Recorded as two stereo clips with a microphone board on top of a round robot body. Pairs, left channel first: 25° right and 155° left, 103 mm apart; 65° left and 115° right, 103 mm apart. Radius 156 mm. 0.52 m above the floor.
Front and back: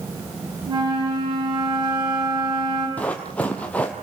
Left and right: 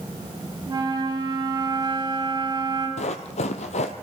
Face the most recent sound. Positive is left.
turn(degrees=55)